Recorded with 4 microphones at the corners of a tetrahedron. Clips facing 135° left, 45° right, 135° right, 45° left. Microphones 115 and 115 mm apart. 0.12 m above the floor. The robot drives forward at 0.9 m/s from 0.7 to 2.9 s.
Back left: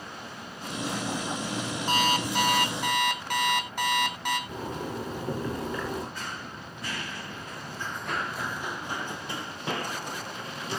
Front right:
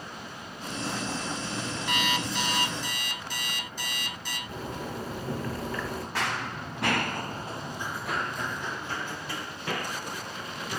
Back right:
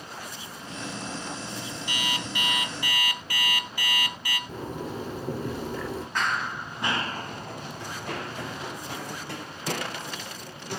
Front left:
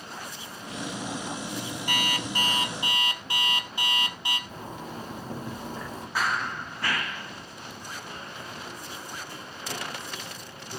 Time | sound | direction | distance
1.9 | an alarm clock | 80° left | 1.8 m
4.5 | a zipper | 155° right | 7 m
6.2 | running footsteps | 40° right | 1.7 m